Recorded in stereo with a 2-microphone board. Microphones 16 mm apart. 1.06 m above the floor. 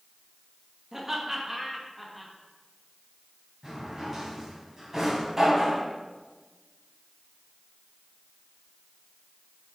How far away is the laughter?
About 1.8 m.